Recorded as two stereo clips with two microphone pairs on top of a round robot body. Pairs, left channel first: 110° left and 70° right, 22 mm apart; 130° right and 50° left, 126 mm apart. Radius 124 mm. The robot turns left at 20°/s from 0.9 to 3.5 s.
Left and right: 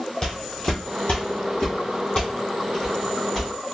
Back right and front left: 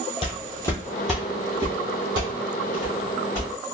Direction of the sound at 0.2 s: 170° left.